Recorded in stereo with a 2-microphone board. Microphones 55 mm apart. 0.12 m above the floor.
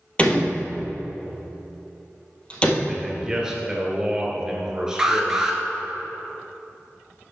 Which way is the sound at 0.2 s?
25° left (ahead or behind).